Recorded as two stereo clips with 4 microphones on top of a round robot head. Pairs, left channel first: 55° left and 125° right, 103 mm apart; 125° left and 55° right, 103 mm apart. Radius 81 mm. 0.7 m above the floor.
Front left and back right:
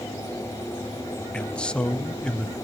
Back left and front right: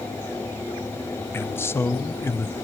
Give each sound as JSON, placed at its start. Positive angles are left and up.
{"t": 1.3, "sound": "a man speaking", "azimuth_deg": 120, "distance_m": 0.8}